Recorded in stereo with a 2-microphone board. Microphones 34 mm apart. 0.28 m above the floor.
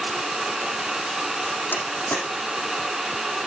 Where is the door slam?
80° left, 8 m.